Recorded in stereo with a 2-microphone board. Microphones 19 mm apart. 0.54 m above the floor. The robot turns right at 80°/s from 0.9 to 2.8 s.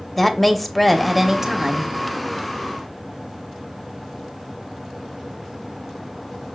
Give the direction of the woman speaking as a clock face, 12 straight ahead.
6 o'clock.